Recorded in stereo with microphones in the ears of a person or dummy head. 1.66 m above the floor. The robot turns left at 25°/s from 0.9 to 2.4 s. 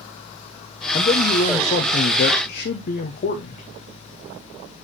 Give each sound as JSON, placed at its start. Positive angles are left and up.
{"t": 0.9, "sound": "a man speaking", "azimuth_deg": 150, "distance_m": 0.7}